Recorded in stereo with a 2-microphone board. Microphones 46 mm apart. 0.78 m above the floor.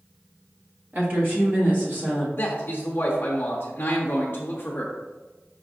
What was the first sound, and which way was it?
A woman speaking, 50° right (ahead or behind).